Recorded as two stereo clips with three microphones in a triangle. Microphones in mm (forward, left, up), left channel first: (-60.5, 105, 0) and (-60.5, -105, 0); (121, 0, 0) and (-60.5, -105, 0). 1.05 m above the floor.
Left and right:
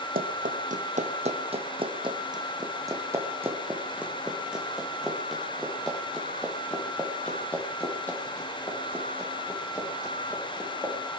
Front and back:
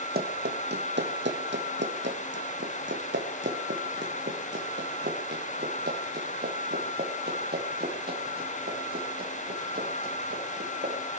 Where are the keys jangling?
No keys jangling in this recording.